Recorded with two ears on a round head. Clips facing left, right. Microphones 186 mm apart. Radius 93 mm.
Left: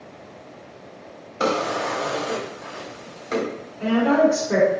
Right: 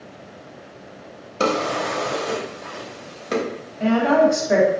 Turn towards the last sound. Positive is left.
turn(degrees=-75)  # may be behind; listen again after turning